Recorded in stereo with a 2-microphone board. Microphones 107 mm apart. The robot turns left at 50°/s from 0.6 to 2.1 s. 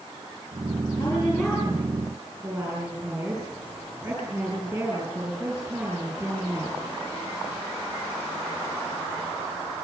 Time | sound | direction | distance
1.0 | a woman speaking | 25° left | 7 m